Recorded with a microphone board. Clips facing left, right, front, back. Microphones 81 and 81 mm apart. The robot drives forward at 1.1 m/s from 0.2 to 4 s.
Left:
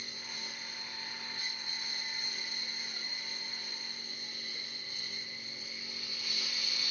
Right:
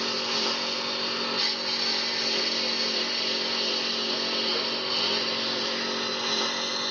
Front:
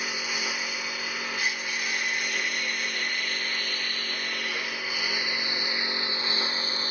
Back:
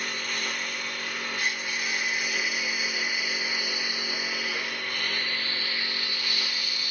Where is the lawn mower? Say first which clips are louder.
Right 18 dB, front 1 dB; 85° right; by 6.9 s 55° right.